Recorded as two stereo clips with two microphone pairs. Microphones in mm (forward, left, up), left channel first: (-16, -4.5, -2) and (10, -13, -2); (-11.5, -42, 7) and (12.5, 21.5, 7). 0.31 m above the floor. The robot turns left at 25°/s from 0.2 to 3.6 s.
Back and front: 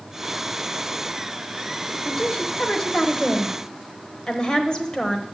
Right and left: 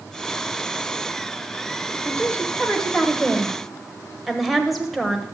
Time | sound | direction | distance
2.0 | a woman speaking | 160° right | 1.0 m